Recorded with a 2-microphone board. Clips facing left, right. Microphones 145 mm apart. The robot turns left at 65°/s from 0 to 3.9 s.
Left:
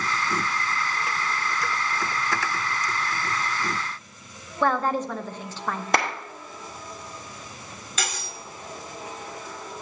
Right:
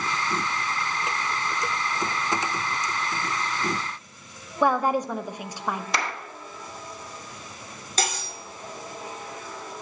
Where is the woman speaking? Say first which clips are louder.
Right 1 dB; 10° right (ahead or behind), 0.6 m.